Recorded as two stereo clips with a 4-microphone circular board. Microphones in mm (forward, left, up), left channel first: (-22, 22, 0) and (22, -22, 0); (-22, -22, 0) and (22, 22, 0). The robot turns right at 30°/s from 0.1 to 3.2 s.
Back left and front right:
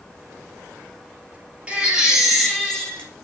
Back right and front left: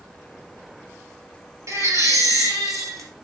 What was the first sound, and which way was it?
A baby crying, 25° left.